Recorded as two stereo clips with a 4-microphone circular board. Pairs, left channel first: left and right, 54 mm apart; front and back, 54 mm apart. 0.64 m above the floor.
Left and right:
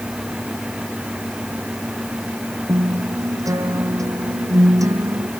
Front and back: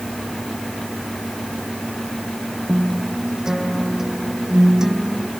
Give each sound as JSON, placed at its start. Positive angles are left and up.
{"t": 2.7, "sound": "a guitar", "azimuth_deg": -100}